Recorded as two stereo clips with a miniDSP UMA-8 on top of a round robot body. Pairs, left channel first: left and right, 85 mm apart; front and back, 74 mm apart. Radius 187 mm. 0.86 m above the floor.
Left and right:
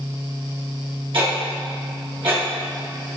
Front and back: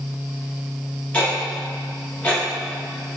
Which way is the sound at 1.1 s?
75° right.